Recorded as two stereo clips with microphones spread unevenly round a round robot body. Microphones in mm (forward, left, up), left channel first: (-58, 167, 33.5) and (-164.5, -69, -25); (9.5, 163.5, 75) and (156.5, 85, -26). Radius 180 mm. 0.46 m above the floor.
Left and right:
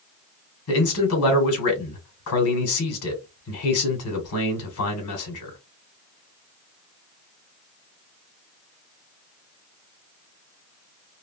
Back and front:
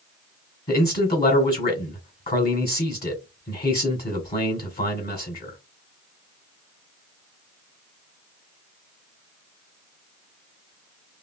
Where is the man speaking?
85° left, 1.8 m.